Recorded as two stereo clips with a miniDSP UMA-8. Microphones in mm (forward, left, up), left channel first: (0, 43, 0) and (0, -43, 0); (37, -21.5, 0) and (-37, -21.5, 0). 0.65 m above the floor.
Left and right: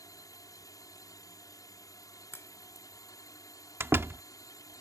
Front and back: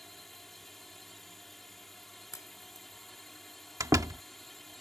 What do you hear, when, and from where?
0.0 s a drone: 85° left
2.3 s a crack: 35° left
3.8 s a door slam: 150° right